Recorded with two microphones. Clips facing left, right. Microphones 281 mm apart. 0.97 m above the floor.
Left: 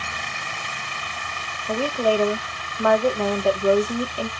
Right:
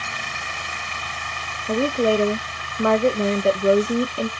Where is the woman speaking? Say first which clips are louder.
Right 3 dB; 25° right (ahead or behind), 0.5 m.